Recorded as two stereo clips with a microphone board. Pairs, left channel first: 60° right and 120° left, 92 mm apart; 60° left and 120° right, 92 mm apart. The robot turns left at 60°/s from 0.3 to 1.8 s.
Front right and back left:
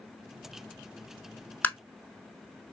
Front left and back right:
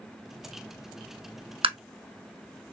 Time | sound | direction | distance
1.6 | tapping | 135° right | 0.7 m